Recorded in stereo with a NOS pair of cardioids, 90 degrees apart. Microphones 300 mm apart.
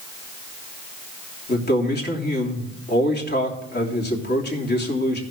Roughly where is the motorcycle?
No motorcycle in this recording.